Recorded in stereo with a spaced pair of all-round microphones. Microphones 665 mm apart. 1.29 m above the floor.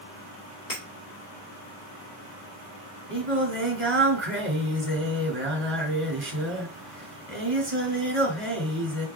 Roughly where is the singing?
Right.